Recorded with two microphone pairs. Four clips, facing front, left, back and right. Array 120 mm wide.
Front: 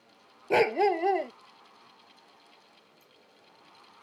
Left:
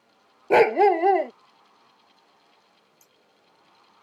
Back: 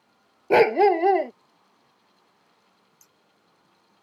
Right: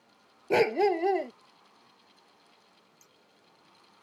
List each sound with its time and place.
0.5 s a dog barking: 120° left
3.0 s scissors: 120° right